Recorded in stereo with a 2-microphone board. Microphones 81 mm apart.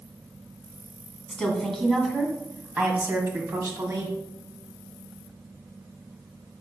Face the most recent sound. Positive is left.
turn(degrees=-40)  # may be behind; listen again after turning